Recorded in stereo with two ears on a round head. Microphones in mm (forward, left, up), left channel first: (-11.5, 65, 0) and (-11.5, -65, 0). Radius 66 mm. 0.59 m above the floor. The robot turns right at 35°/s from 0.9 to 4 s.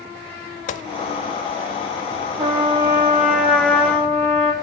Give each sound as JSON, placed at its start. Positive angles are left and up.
{"t": 0.7, "sound": "a gunshot", "side_deg": 55, "distance_m": 0.5}
{"t": 2.4, "sound": "a trumpet", "azimuth_deg": -45, "distance_m": 1.3}